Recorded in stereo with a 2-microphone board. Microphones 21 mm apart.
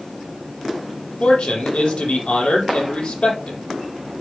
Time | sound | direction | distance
1.2 | a man speaking | 70° left (ahead or behind) | 6 m